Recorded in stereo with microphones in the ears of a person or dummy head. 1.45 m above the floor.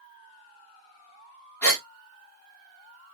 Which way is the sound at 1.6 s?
15° left (ahead or behind).